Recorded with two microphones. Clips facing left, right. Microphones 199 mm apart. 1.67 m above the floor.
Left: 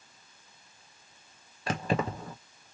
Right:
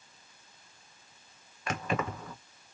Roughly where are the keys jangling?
Left.